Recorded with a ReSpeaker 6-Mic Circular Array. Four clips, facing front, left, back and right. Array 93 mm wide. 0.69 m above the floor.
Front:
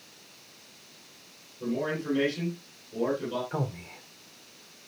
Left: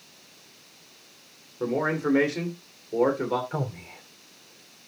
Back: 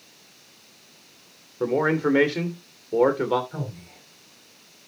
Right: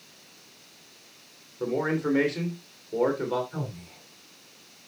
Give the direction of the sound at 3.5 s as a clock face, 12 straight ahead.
10 o'clock.